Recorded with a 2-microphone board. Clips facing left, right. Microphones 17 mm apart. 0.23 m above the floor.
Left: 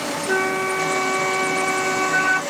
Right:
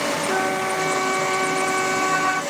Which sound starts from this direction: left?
A flute, at 0.3 s.